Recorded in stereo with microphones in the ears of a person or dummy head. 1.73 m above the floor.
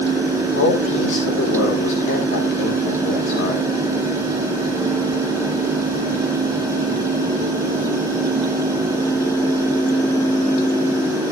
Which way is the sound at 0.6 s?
70° left (ahead or behind).